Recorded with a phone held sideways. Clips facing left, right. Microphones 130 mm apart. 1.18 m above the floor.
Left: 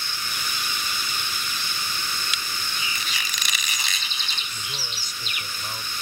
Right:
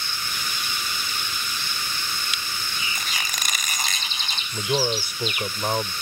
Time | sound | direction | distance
3.0 | a squeak | 50° right (ahead or behind) | ?
4.5 | a man speaking | 70° right (ahead or behind) | ?